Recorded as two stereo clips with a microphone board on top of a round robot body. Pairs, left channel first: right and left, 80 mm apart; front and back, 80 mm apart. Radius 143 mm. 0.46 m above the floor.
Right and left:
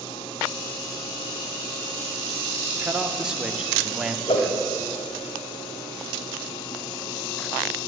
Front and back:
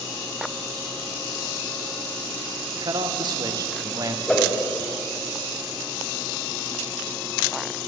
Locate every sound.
2.8 s a man speaking: 170° left, 2.5 m; by 4.2 s 165° left, 1.7 m
4.3 s a whoosh: 80° right, 2.5 m